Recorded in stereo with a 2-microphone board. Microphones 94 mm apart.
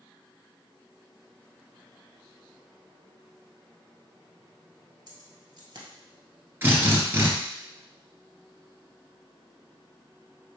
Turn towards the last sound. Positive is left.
turn(degrees=-25)  # may be behind; listen again after turning